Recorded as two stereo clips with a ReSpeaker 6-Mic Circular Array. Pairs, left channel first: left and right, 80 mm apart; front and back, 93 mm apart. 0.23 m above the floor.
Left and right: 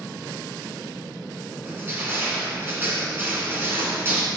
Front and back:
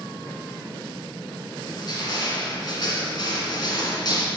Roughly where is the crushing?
Ahead right.